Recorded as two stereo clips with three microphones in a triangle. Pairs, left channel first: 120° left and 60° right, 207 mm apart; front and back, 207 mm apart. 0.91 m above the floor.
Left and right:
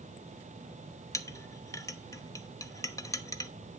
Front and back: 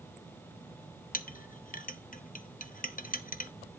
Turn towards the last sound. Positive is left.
turn(degrees=45)